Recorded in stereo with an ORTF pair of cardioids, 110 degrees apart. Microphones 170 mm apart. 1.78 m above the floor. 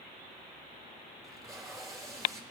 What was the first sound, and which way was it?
Tape being pulled, 20° right.